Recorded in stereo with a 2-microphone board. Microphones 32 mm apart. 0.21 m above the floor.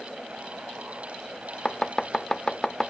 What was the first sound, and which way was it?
Chopping, 15° left (ahead or behind).